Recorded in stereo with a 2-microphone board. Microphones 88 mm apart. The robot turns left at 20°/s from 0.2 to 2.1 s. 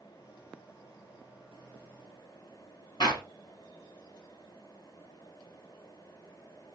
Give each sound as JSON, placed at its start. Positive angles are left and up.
{"t": 3.0, "sound": "a clap", "side_deg": 65, "distance_m": 1.9}